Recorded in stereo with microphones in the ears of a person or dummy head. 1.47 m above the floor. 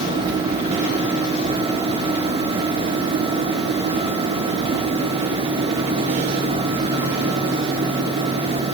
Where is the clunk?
I don't hear a clunk.